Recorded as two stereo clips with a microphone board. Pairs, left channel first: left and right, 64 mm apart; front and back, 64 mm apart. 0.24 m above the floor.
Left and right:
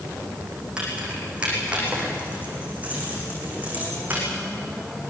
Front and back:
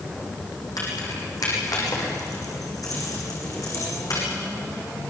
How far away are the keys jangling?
About 7.5 m.